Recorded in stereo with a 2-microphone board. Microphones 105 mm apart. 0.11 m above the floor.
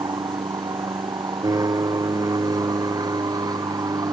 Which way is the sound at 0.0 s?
35° right (ahead or behind).